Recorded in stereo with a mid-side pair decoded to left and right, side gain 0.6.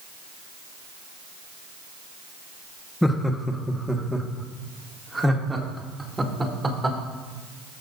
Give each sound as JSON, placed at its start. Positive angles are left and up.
{"t": 3.0, "sound": "laughter", "azimuth_deg": 5, "distance_m": 1.4}